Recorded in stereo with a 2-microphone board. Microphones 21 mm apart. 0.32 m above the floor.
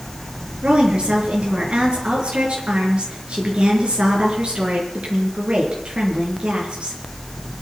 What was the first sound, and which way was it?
A woman speaking, 55° right (ahead or behind).